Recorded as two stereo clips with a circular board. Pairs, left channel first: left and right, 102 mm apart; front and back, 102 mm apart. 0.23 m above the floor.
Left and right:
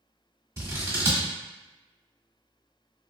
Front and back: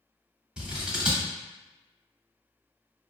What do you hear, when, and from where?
0.6 s scissors: 110° right, 1.0 m